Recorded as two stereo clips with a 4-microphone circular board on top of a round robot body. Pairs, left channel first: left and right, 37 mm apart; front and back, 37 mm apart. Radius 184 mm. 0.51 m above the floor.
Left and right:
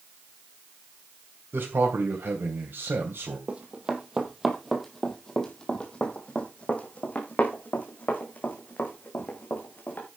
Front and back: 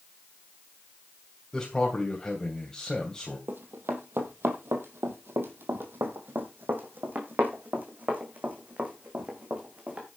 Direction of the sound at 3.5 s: 150° right.